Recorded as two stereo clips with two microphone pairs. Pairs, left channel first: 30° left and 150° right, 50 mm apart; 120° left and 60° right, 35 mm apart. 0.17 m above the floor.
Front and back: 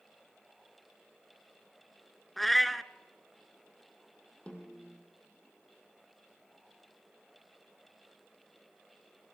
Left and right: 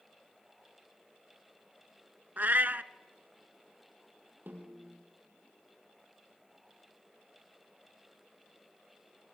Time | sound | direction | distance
2.4 | a cat meowing | 55° right | 0.6 m
4.5 | a snare drum | 35° right | 4 m